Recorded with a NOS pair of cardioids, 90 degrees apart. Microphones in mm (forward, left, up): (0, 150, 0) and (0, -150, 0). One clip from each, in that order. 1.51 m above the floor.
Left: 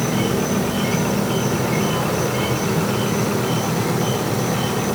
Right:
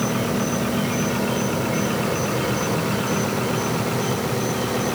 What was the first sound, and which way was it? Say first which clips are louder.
An insect: left 2 dB; 55° left.